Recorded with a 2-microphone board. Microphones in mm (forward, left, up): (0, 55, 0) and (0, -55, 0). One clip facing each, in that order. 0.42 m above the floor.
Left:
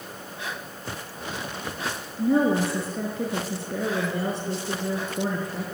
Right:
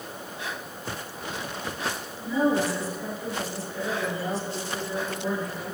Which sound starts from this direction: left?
A woman speaking, at 2.2 s.